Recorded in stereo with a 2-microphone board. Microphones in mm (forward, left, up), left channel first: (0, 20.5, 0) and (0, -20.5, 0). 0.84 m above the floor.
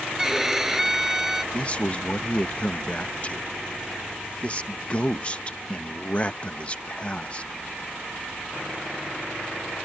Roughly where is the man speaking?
Left.